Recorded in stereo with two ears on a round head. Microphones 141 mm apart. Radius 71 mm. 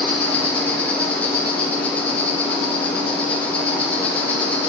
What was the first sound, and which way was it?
An insect, 10° left (ahead or behind).